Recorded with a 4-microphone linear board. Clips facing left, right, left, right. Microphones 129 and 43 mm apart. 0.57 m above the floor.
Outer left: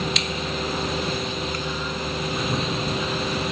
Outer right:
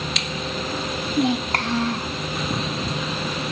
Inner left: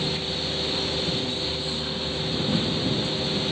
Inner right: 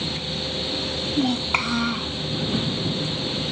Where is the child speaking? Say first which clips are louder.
Outer right 7 dB, inner right 7 dB; 80° right.